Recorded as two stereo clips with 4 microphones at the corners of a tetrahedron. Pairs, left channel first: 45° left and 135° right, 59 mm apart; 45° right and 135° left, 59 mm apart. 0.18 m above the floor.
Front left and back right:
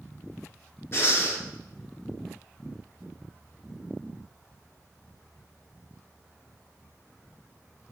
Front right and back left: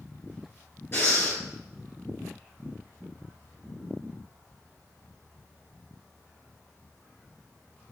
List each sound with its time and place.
0.9 s breathing: straight ahead, 1.5 m